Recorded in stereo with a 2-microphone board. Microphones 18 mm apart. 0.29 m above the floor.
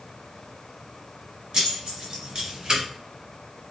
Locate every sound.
1.5 s keys jangling: 50° right (ahead or behind), 1.6 m